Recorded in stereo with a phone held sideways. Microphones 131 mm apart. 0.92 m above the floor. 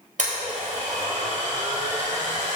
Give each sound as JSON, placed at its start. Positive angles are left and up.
{"t": 0.2, "sound": "a blender", "side_deg": -75, "distance_m": 3.5}